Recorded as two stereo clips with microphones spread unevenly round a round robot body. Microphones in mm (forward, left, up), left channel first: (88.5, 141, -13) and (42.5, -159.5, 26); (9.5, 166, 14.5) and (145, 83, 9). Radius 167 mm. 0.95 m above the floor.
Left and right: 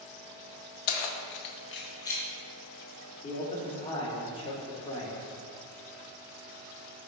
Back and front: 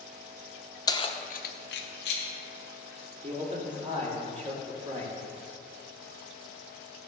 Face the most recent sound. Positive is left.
turn(degrees=10)